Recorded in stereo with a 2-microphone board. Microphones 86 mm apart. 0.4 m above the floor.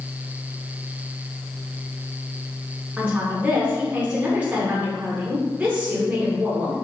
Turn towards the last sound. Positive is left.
turn(degrees=-15)  # may be behind; listen again after turning